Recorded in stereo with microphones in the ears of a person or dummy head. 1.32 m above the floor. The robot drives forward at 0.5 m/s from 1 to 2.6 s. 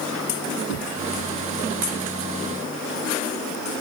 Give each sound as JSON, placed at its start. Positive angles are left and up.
{"t": 0.7, "sound": "knocking", "side_deg": 70}